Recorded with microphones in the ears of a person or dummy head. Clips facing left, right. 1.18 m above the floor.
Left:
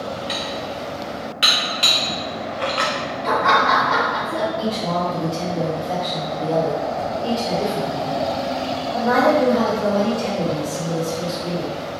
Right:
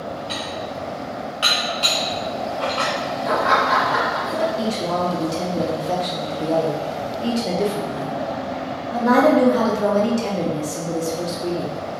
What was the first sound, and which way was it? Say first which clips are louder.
Dishes clattering: left 1 dB; 25° left (ahead or behind).